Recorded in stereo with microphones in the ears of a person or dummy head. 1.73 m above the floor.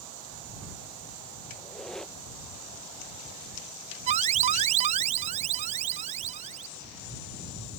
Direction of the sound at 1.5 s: Centre (ahead or behind).